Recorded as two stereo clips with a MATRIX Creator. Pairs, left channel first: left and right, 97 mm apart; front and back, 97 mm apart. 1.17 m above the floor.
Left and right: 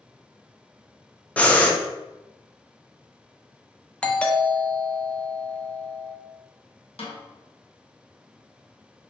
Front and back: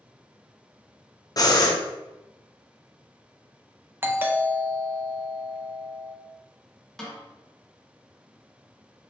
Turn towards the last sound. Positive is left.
turn(degrees=85)